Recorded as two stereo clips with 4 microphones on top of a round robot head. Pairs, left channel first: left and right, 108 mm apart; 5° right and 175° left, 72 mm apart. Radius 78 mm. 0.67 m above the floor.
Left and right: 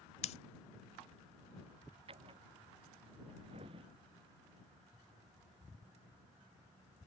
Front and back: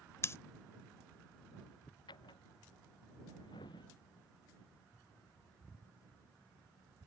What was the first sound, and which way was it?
Scissors, 45° left.